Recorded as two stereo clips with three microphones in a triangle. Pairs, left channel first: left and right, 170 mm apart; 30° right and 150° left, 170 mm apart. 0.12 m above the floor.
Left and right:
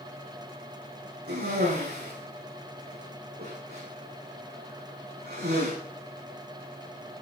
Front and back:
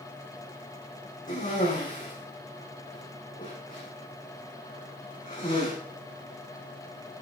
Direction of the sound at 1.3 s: 70° right.